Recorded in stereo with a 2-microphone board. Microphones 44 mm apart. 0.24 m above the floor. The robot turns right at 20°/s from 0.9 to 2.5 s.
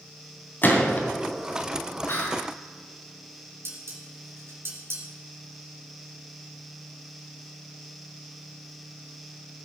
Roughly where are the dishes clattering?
Right.